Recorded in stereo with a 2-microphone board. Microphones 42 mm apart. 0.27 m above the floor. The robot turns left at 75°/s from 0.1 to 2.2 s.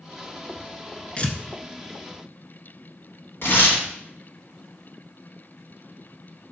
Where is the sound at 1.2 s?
25° left (ahead or behind), 0.5 m; by 1.4 s 40° left (ahead or behind), 0.5 m.